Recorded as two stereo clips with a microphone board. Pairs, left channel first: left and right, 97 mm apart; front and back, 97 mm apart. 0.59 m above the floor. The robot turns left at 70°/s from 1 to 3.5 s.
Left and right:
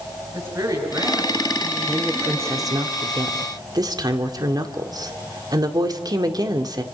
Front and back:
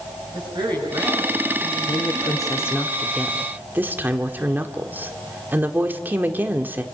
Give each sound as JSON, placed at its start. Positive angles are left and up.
{"t": 0.3, "sound": "a woman speaking", "azimuth_deg": -145, "distance_m": 9.5}
{"t": 1.9, "sound": "a woman speaking", "azimuth_deg": 0, "distance_m": 1.9}